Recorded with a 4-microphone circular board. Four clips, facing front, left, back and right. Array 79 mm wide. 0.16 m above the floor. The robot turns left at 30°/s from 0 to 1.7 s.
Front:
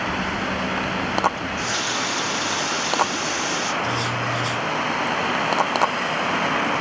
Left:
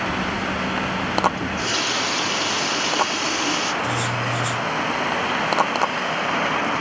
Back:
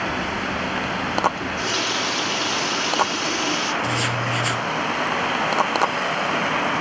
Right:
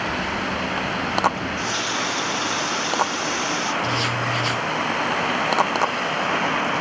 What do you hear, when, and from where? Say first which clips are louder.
1.4 s a running tap: left 1 dB, back 1 dB; 130° left, 2.5 m; by 3.7 s 120° left, 2.5 m
3.8 s writing: even, even; 155° right, 1.3 m